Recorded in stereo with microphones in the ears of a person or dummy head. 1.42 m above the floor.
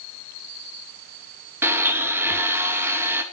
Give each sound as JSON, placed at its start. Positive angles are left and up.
{"t": 1.6, "sound": "a blender", "side_deg": -5, "distance_m": 2.0}